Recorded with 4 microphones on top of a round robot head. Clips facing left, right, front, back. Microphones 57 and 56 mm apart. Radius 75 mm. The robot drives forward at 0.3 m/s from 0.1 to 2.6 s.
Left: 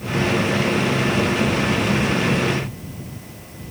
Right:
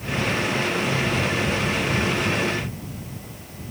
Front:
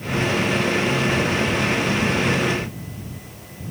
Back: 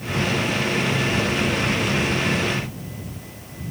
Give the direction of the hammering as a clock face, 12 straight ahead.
No hammering in this recording.